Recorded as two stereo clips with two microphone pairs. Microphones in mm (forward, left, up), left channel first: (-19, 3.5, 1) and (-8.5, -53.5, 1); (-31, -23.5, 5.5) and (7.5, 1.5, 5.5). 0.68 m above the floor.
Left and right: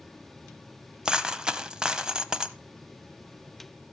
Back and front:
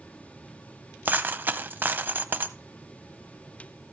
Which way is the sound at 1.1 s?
10° right.